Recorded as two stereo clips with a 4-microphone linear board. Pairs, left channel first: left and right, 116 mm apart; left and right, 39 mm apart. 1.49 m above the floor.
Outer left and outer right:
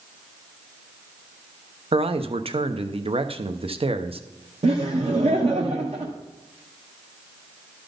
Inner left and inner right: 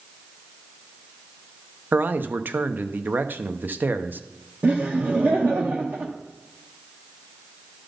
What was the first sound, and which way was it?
A man speaking, 55° right (ahead or behind).